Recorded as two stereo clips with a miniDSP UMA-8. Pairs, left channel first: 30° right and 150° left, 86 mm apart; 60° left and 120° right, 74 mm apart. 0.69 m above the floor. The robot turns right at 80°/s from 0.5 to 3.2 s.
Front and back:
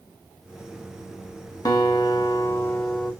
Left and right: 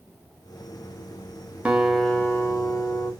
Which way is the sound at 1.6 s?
50° right.